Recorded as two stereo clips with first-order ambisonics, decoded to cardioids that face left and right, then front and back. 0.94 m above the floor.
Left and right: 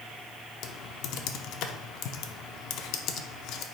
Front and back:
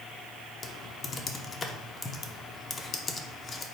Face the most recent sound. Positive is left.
turn(degrees=65)